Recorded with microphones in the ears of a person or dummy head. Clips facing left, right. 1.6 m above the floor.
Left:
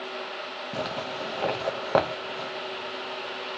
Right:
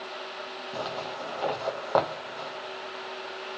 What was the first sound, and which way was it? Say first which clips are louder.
A zipper: left 2 dB; 35° left (ahead or behind).